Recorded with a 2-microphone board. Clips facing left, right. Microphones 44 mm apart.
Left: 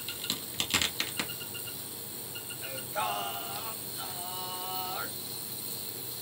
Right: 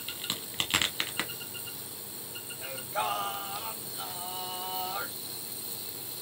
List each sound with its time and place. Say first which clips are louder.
0.1 s a crack: even; 30° right (ahead or behind), 0.9 m
2.6 s singing: right 1 dB; 50° right (ahead or behind), 1.2 m